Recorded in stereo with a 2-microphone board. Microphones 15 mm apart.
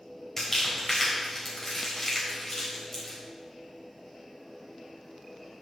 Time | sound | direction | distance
0.4 | crumpling | 25° left (ahead or behind) | 4 m